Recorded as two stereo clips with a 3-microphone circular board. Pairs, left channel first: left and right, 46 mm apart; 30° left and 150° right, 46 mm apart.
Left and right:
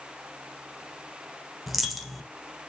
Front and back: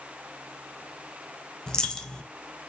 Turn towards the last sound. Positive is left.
turn(degrees=-5)